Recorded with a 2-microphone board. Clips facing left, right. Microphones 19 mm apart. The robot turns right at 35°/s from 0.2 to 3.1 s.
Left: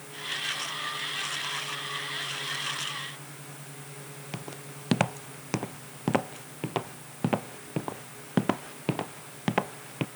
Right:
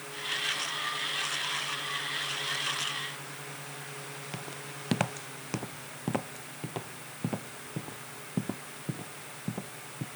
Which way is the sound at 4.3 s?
10° left (ahead or behind).